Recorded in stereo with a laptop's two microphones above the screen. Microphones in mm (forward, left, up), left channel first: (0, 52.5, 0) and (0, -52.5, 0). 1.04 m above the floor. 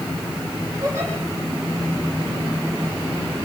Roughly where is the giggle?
Right.